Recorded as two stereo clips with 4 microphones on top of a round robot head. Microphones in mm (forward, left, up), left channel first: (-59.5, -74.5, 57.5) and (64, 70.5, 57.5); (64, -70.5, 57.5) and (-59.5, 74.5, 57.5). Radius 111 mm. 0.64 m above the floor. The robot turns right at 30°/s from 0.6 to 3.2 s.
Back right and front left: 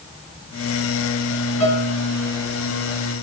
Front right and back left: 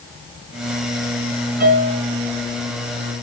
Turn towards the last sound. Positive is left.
turn(degrees=-140)